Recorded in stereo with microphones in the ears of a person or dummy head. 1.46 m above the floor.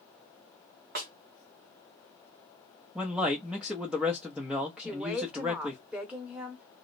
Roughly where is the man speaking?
Centre.